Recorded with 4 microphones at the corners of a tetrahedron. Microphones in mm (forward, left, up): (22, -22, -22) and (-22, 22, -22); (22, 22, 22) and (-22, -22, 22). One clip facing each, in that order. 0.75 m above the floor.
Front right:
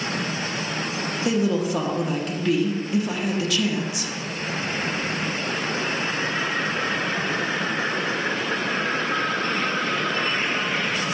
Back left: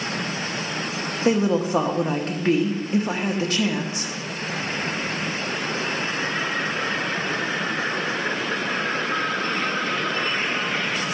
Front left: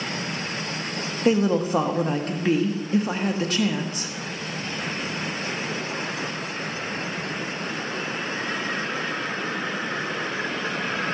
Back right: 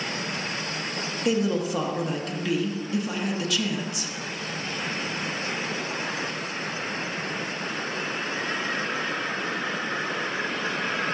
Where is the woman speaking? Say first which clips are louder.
Back left 3 dB, front left 4 dB; 90° left, 1.0 m.